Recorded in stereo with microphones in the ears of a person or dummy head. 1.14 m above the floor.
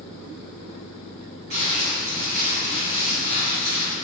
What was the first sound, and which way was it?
Crumpling, 50° right (ahead or behind).